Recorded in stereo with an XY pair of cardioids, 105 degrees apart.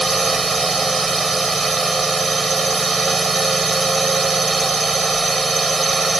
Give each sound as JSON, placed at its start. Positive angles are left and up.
{"t": 0.0, "sound": "a drone", "azimuth_deg": -25}